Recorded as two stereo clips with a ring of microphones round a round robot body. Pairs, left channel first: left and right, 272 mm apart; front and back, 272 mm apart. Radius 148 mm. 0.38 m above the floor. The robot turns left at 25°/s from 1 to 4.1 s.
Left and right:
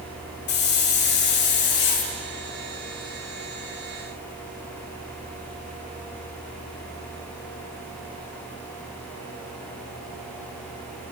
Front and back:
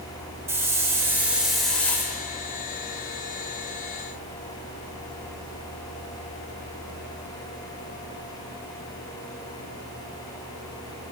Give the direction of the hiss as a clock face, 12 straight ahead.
9 o'clock.